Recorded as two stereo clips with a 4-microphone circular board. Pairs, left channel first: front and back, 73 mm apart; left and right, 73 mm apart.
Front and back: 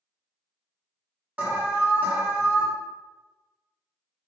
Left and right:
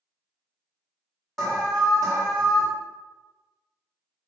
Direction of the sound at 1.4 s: 160° left.